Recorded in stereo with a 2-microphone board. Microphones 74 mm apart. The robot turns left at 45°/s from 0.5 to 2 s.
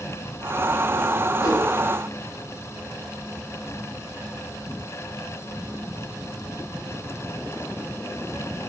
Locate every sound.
1.4 s a whoosh: 55° left (ahead or behind), 2.5 m; by 1.7 s 40° left (ahead or behind), 2.5 m